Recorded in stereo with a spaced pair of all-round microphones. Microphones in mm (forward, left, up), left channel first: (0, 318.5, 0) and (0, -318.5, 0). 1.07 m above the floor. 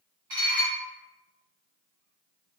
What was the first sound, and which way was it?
Dishes clattering, 80° right.